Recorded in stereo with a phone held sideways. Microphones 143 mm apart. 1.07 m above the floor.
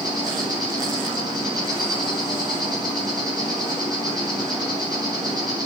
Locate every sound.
0.0 s an insect: 30° right (ahead or behind), 9 m